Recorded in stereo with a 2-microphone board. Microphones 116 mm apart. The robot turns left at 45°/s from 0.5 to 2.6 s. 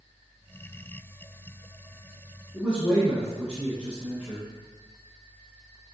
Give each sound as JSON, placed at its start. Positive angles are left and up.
{"t": 2.5, "sound": "a man speaking", "side_deg": -10, "distance_m": 2.0}